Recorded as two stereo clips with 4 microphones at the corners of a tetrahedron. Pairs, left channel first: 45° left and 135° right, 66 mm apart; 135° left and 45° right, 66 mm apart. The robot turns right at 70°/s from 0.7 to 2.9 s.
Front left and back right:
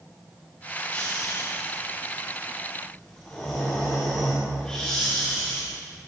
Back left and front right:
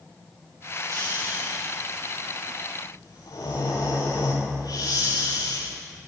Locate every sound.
0.9 s snoring: 15° right, 10 m; by 5.6 s 125° left, 10 m